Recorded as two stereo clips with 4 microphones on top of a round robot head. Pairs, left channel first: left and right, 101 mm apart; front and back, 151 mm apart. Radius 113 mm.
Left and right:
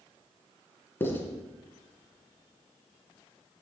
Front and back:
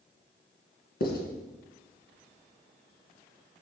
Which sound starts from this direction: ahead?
Writing, at 1.0 s.